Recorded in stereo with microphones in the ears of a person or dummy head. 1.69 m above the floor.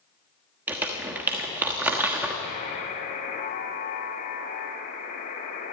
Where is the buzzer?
45° left (ahead or behind), 3 m.